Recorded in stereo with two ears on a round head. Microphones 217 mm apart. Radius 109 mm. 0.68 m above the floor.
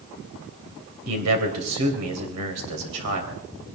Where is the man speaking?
70° right (ahead or behind), 3.5 m.